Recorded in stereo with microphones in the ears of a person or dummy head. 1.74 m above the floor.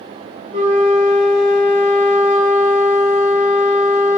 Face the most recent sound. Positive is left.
turn(degrees=-25)  # may be behind; listen again after turning